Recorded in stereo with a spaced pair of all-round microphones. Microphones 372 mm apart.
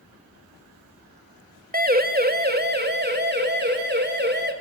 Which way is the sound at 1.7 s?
25° right (ahead or behind).